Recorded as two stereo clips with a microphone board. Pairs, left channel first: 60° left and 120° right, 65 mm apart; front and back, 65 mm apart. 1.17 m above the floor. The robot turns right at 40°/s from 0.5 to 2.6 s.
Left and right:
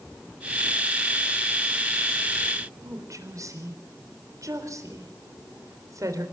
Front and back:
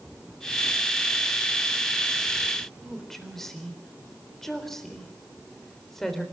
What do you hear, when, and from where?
2.8 s a woman speaking: 85° right, 3.5 m